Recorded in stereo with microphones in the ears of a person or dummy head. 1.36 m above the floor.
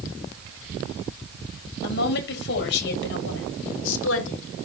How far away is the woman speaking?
About 8 m.